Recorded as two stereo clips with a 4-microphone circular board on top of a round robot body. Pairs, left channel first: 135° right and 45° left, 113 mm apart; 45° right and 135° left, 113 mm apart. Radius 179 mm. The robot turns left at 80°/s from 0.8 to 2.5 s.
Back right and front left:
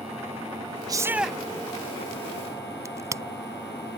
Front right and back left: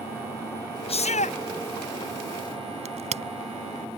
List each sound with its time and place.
0.9 s a shout: 10° right; by 1.4 s 50° right
2.9 s a crack: 110° left